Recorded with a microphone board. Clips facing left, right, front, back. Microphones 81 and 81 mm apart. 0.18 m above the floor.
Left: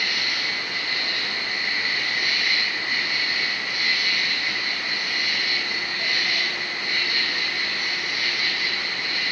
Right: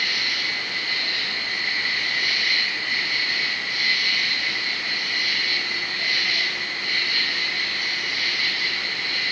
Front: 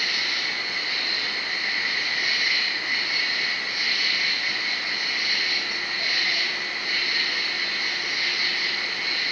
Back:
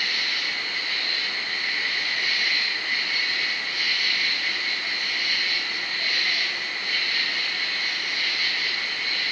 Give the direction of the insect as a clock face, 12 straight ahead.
10 o'clock.